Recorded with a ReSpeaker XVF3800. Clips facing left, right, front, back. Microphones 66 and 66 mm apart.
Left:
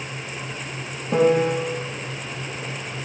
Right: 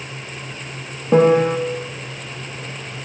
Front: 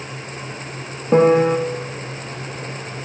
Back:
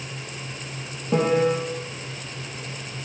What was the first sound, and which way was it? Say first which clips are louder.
A piano: right 5 dB, front 7 dB; 35° right.